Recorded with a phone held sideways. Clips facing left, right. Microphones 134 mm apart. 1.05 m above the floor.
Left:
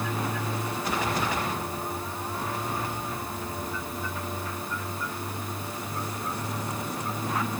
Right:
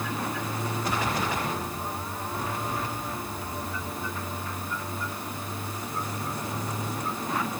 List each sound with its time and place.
Only background noise.